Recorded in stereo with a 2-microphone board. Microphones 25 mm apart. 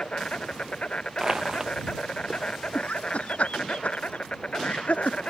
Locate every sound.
0.0 s an insect: 50° left (ahead or behind)
1.2 s crushing: 25° right (ahead or behind)
2.8 s laughter: 70° left (ahead or behind)